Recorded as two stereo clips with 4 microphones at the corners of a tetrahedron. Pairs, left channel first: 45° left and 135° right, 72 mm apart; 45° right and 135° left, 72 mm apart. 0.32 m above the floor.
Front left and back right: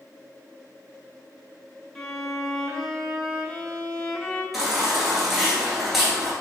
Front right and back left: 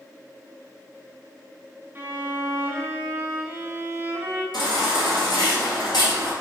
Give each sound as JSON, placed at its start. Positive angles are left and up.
{"t": 1.9, "sound": "a violin", "azimuth_deg": 125, "distance_m": 1.0}
{"t": 4.5, "sound": "a baby crying", "azimuth_deg": -45, "distance_m": 1.6}